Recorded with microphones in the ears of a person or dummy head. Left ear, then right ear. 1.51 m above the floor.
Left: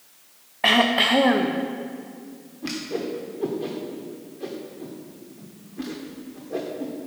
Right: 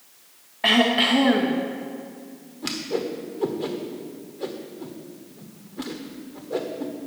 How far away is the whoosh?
About 1.0 m.